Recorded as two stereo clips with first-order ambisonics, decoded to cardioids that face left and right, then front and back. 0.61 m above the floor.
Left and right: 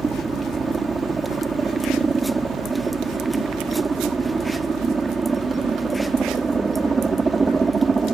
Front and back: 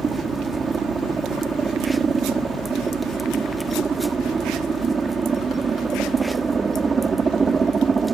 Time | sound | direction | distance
0.0 | a helicopter | 145° right | ?